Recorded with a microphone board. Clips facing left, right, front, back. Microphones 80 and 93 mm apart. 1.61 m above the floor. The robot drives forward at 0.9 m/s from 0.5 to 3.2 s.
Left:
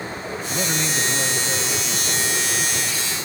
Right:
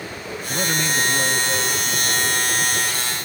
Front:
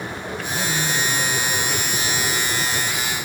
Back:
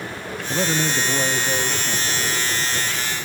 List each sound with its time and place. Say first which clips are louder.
0.5 s a man speaking: right 3 dB, back 4 dB; 175° right, 0.6 m; by 2.4 s straight behind, 2.5 m